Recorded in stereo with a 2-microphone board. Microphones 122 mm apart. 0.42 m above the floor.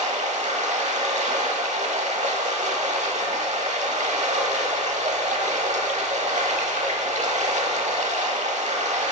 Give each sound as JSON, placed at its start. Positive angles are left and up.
{"t": 0.0, "sound": "running water", "side_deg": -75, "distance_m": 0.8}